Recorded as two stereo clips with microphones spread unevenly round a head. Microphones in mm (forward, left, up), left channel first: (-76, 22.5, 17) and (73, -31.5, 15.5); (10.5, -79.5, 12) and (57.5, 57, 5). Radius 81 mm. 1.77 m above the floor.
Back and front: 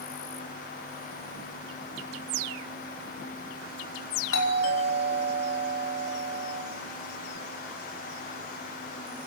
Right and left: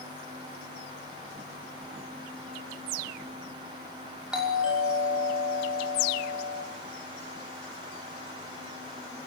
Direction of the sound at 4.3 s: 155° left.